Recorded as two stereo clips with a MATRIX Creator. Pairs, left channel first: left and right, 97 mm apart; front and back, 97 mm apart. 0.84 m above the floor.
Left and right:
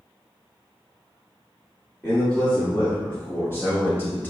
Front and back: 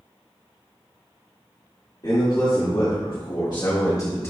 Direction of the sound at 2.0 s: 25° left.